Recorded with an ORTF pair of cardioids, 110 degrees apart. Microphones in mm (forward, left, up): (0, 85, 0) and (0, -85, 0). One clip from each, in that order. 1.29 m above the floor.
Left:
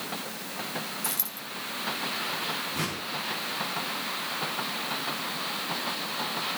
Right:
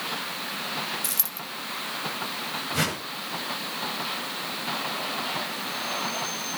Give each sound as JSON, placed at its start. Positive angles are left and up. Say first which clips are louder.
{"t": 1.0, "sound": "a dropped coin", "louder": "right 2 dB", "azimuth_deg": -30, "distance_m": 3.5}
{"t": 2.7, "sound": "a whoosh", "louder": "right 4 dB", "azimuth_deg": -65, "distance_m": 7.0}